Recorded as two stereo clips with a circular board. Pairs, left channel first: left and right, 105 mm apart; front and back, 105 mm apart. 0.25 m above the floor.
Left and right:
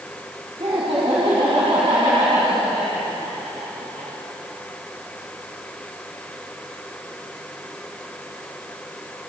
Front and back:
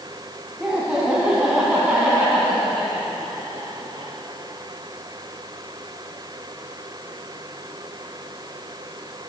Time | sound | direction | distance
0.6 | laughter | 95° right | 2.5 m